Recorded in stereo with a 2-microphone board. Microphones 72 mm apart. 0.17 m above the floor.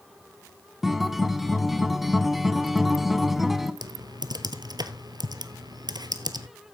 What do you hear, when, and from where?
0.8 s a guitar: 5° right (ahead or behind), 0.6 m
3.8 s typing on a keyboard: 70° right (ahead or behind), 0.9 m